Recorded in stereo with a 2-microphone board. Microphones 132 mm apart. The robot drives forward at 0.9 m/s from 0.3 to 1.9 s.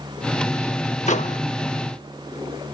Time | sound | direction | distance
1.1 | a microwave | 60° left (ahead or behind) | ?